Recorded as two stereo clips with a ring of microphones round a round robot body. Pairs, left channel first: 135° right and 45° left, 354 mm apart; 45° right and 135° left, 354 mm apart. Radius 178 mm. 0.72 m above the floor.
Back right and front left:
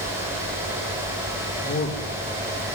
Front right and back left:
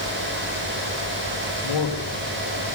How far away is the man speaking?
About 3.5 m.